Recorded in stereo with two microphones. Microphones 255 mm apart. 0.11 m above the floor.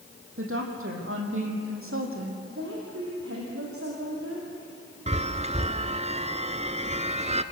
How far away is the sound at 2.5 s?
About 5.5 m.